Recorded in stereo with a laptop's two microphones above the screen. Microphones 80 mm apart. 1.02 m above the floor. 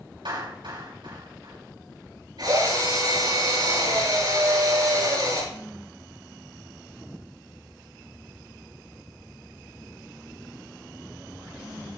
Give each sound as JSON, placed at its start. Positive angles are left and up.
{"t": 0.2, "sound": "a clap", "side_deg": -80, "distance_m": 6.0}
{"t": 2.4, "sound": "a drill", "side_deg": -60, "distance_m": 8.5}